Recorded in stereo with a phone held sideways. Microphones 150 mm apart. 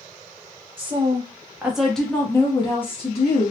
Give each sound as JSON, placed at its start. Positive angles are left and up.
{"t": 0.8, "sound": "a woman speaking", "side_deg": -35, "distance_m": 1.0}